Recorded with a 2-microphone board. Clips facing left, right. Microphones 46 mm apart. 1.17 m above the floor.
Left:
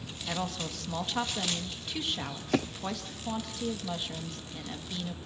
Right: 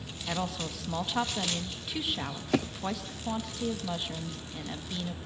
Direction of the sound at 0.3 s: 5° right (ahead or behind).